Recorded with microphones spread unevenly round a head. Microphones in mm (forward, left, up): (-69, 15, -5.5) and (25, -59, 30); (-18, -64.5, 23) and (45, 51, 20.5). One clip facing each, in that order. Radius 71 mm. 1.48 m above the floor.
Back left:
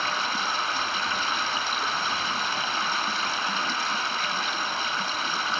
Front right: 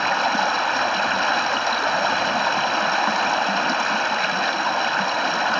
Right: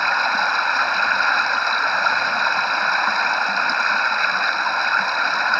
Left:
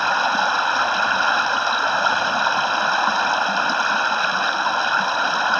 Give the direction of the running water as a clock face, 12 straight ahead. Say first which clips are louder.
Front right 9 dB, left 2 dB; 1 o'clock.